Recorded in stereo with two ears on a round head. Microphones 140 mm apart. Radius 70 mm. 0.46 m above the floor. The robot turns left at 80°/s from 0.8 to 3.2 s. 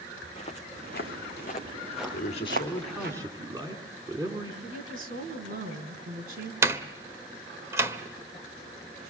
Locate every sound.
0.2 s footsteps: 40° left (ahead or behind), 2.5 m; by 3.1 s 65° right (ahead or behind), 3 m
2.1 s a man speaking: 60° left, 4 m; by 4.5 s 25° right, 4 m
4.6 s a woman speaking: 65° right (ahead or behind), 5 m
6.6 s a door slam: 20° right (ahead or behind), 1.3 m